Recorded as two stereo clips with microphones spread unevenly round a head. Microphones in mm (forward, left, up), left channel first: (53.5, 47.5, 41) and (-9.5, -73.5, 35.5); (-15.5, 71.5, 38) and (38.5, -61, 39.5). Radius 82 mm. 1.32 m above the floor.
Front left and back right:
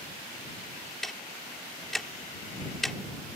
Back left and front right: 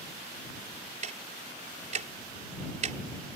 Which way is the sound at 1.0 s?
25° right.